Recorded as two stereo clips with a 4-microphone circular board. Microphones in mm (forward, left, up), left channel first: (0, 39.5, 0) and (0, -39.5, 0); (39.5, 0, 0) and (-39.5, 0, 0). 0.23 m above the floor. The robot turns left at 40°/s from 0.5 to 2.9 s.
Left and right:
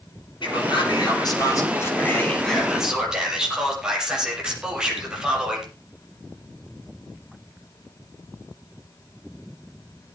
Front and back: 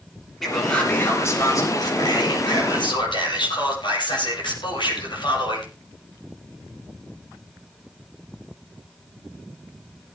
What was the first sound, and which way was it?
A man speaking, 85° left.